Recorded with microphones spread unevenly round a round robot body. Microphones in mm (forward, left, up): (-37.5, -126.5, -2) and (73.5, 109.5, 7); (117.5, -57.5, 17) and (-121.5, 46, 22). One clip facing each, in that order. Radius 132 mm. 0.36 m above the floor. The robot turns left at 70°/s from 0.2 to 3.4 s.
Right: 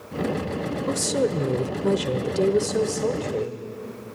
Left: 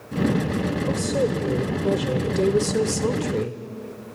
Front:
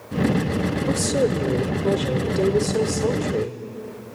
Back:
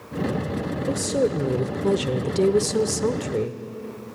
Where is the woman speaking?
95° right, 1.0 m; by 3.6 s 90° left, 1.0 m.